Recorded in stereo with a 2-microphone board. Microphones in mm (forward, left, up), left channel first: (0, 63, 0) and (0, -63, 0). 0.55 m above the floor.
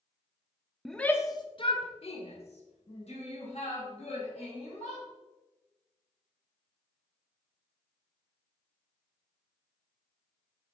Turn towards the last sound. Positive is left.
turn(degrees=55)  # may be behind; listen again after turning